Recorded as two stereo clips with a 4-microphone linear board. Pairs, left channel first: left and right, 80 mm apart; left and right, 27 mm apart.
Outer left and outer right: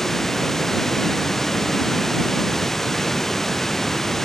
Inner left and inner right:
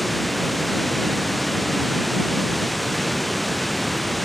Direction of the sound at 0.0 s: 5° left (ahead or behind).